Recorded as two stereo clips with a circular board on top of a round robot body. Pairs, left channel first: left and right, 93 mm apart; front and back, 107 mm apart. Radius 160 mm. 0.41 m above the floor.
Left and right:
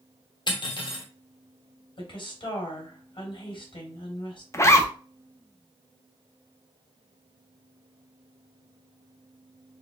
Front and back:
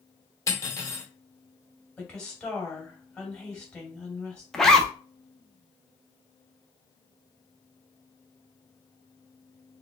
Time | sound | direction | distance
0.5 | cutlery clinking | 60° left | 1.3 m
2.0 | a woman speaking | 80° left | 2.5 m
4.5 | a zipper | 85° left | 0.9 m